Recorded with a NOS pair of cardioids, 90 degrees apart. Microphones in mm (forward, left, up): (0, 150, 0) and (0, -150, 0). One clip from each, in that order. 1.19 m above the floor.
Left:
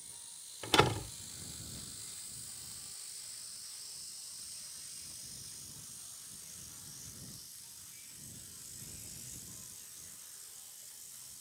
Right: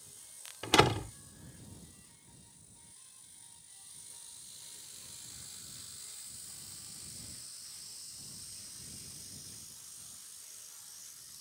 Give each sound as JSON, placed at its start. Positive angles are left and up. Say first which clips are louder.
{"t": 0.6, "sound": "a door slam", "louder": "right 2 dB", "azimuth_deg": -25}